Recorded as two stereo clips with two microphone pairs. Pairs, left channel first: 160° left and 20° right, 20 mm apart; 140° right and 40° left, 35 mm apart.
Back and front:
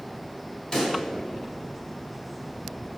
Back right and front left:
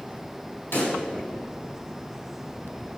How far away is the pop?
About 3.5 m.